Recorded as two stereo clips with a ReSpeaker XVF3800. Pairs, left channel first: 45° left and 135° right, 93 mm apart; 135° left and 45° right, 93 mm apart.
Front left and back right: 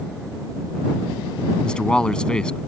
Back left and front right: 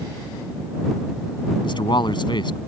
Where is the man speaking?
125° left.